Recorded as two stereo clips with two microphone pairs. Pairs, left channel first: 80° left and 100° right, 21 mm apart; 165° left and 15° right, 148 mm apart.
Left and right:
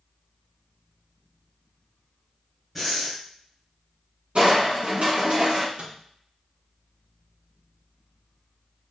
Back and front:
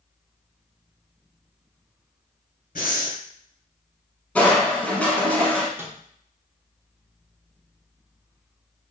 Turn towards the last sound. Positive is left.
turn(degrees=-85)